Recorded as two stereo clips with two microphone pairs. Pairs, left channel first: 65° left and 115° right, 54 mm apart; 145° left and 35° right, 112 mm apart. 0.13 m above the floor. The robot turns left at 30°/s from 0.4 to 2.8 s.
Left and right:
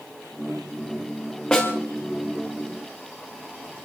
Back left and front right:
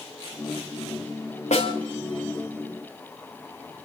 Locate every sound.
1.5 s a snare drum: 140° left, 4.5 m; by 1.7 s 130° left, 4.5 m